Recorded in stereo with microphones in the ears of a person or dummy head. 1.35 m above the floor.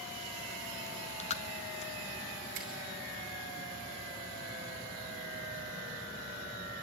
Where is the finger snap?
45° right (ahead or behind), 2.5 m.